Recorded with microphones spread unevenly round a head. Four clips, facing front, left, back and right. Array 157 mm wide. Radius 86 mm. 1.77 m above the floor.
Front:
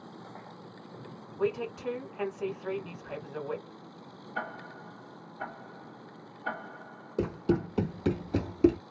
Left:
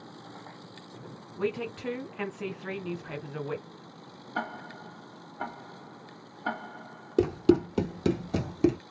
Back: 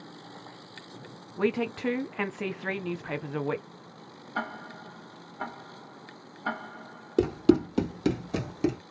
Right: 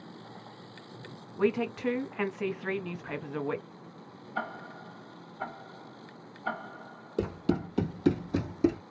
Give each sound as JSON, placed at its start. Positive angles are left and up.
{"t": 1.4, "sound": "a woman speaking", "azimuth_deg": -165, "distance_m": 1.2}
{"t": 4.3, "sound": "ticking", "azimuth_deg": 110, "distance_m": 1.3}
{"t": 7.2, "sound": "running footsteps", "azimuth_deg": 130, "distance_m": 2.5}